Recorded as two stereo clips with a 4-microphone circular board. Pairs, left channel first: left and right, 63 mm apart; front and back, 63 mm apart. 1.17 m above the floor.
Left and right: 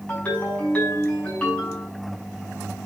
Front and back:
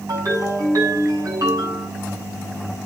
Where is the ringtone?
160° left, 6 m.